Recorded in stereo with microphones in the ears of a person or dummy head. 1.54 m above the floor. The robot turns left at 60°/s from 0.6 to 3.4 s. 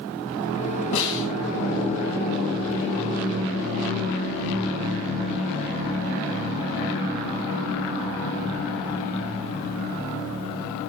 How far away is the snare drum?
About 4.5 m.